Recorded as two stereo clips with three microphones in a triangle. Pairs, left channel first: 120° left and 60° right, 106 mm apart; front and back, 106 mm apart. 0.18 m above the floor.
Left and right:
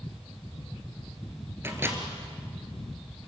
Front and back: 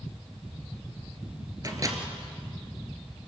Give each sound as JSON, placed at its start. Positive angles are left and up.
{"t": 1.6, "sound": "a microwave", "azimuth_deg": -125, "distance_m": 2.5}